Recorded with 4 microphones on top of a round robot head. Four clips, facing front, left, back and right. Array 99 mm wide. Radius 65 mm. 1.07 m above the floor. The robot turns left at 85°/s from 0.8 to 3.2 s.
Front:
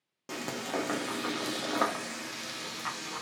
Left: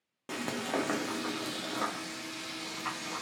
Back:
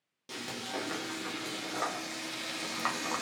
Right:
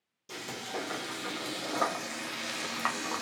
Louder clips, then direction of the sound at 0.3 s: Left 5 dB, front 4 dB; 60° left.